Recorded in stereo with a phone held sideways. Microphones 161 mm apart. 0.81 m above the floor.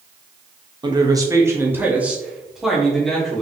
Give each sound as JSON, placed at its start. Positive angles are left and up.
{"t": 0.8, "sound": "a man speaking", "side_deg": -25, "distance_m": 1.0}